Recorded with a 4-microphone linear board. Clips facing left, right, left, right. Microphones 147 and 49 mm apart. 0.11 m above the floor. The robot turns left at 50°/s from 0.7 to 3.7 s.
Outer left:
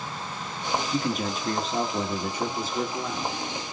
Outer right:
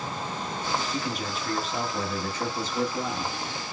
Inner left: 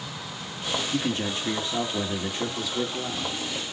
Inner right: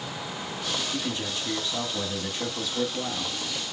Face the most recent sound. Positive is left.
turn(degrees=-45)